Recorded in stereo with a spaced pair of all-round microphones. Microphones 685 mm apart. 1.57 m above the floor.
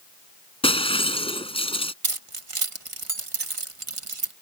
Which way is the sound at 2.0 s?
50° right (ahead or behind).